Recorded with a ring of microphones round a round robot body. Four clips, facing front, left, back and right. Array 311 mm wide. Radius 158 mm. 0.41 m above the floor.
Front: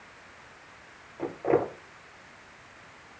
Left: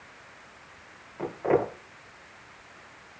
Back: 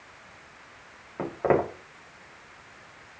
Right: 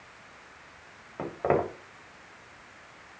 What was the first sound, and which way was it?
Footsteps, 150° right.